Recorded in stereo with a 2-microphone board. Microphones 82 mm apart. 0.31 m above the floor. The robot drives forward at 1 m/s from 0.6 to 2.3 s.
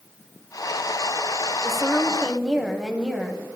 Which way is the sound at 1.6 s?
5° right (ahead or behind).